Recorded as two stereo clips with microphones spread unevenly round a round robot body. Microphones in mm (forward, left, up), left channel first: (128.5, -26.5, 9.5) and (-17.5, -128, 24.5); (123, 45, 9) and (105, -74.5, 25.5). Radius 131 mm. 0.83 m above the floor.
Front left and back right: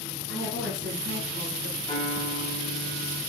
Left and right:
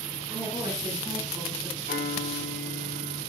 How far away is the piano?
About 5 m.